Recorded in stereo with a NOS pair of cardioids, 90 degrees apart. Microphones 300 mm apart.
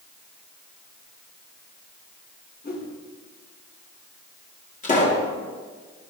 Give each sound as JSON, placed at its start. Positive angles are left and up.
{"t": 2.6, "sound": "a whoosh", "azimuth_deg": 35, "distance_m": 3.5}
{"t": 4.8, "sound": "a pop", "azimuth_deg": 25, "distance_m": 5.0}